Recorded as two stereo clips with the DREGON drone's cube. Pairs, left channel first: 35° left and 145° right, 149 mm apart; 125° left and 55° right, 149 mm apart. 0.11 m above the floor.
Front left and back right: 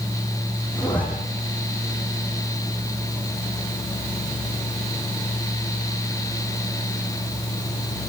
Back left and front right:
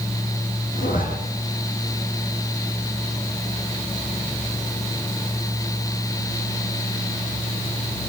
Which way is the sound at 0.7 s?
115° left.